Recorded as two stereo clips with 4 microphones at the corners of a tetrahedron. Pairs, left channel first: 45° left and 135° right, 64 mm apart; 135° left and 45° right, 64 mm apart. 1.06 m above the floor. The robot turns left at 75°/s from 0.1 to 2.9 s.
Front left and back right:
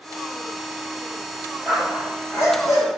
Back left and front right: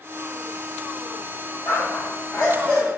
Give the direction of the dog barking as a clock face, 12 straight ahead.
7 o'clock.